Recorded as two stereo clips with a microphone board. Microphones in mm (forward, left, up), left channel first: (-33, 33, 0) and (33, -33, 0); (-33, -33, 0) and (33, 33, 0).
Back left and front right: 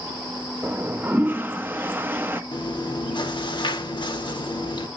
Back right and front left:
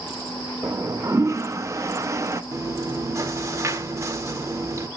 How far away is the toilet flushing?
About 0.6 m.